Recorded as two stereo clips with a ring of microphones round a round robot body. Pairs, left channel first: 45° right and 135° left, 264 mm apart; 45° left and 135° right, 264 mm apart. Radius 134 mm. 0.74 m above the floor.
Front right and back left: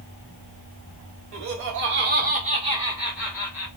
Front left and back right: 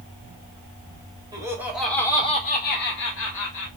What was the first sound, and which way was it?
Laughter, 150° left.